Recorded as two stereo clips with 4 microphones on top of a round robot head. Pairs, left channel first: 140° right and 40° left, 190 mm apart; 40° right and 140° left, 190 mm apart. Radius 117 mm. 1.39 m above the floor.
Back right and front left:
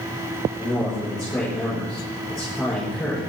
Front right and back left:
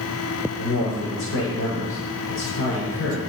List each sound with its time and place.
0.6 s a man speaking: 50° right, 7.5 m